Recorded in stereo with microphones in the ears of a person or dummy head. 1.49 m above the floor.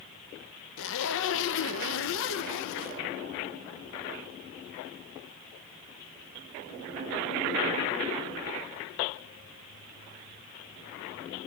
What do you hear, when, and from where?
0.8 s a zipper: 60° left (ahead or behind), 0.6 m